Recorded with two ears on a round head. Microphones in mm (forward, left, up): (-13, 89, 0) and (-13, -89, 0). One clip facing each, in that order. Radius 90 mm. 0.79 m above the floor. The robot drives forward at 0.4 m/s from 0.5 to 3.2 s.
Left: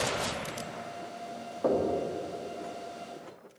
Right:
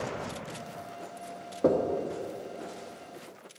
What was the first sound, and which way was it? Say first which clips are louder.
Knocking: right 2 dB; 35° right (ahead or behind).